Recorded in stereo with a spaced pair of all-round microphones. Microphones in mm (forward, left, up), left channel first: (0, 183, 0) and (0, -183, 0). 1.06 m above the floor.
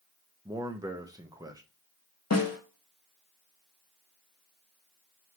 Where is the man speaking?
10° right (ahead or behind), 0.5 m.